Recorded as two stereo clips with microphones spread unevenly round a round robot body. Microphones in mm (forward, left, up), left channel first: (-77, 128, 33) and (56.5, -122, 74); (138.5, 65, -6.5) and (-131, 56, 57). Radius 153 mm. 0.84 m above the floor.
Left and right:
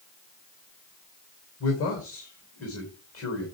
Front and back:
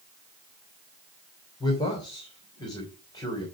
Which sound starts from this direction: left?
A man speaking, at 1.6 s.